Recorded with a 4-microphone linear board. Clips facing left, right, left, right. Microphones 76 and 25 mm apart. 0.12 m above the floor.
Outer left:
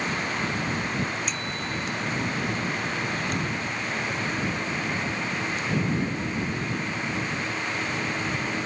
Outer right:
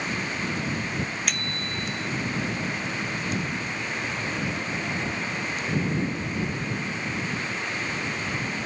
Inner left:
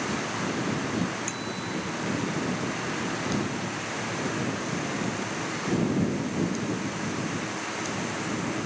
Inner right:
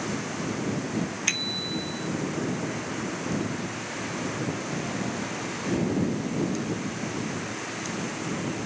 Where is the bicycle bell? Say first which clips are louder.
Outer left 1 dB, inner right 4 dB; 65° right (ahead or behind).